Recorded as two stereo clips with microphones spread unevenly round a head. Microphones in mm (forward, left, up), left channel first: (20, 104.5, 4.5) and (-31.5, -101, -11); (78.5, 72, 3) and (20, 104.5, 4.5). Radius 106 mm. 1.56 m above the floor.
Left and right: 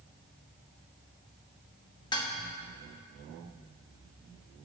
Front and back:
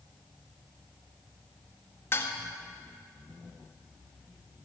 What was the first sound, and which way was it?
Dishes clattering, 15° left.